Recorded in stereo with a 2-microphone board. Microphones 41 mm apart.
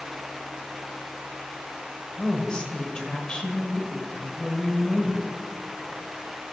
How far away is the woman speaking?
About 1.4 m.